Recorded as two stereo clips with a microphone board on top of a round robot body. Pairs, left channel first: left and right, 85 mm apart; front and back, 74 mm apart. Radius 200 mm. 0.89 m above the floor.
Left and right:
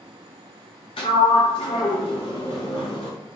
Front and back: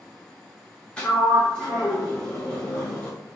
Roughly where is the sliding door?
Left.